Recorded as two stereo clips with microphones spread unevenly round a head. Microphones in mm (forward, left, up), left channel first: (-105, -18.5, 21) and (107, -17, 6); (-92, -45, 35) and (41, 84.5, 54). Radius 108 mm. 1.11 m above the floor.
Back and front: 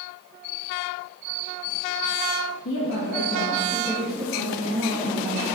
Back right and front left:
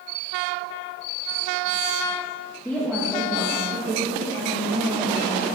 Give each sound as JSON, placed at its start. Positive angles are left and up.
{"t": 2.6, "sound": "a woman speaking", "azimuth_deg": 140, "distance_m": 1.0}